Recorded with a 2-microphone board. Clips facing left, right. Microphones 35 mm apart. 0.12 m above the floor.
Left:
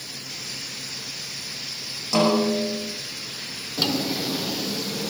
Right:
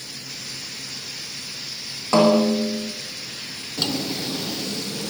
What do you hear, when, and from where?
2.1 s a snare drum: 40° right (ahead or behind), 5.5 m
3.8 s a drawer: 5° left (ahead or behind), 1.4 m